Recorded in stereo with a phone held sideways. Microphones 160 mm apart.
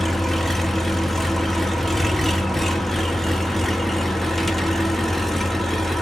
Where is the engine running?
Centre (ahead or behind), 0.8 m.